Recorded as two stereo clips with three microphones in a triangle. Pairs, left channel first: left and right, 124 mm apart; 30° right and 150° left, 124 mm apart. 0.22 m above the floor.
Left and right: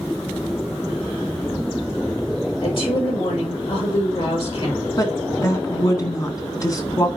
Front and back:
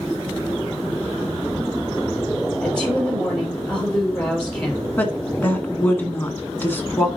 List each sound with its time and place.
2.6 s a woman speaking: 50° left, 5 m
5.0 s a woman speaking: 40° left, 1.8 m